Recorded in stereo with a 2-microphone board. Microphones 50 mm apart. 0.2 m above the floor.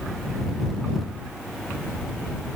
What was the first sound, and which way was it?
Only background noise.